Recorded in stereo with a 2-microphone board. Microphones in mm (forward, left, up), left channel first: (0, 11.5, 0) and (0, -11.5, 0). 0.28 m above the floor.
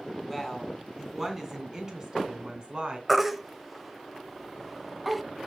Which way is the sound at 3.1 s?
10° right (ahead or behind).